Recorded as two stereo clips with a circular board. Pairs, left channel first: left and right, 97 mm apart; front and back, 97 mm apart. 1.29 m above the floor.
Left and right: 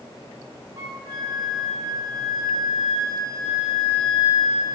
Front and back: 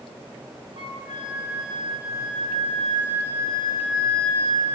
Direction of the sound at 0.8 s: 140° right.